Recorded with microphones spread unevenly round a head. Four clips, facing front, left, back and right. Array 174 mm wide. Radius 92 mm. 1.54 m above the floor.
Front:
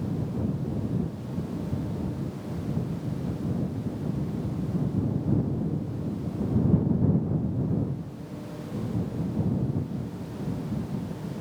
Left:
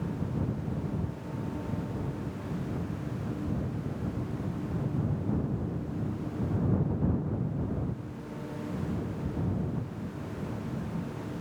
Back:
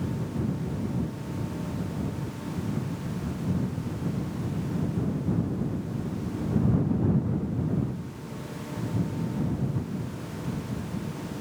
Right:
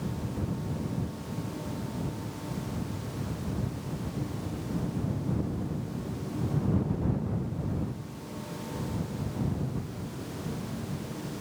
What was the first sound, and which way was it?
Only background noise.